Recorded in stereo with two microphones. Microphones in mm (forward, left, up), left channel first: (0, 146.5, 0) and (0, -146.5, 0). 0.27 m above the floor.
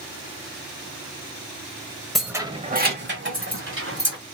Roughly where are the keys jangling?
Centre.